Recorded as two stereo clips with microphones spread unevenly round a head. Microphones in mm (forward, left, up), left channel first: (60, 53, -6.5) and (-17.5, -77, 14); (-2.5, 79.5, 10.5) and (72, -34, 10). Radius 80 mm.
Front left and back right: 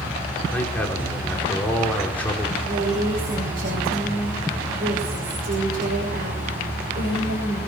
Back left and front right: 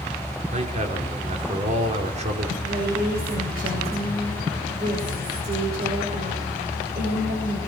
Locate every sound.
0.5 s a man speaking: 20° right, 4.5 m
2.6 s a woman speaking: 95° right, 6.5 m